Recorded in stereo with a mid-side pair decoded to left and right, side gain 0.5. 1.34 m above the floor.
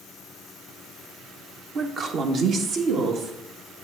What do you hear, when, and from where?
1.8 s a woman speaking: 45° right, 0.9 m; by 3.3 s 75° right, 2 m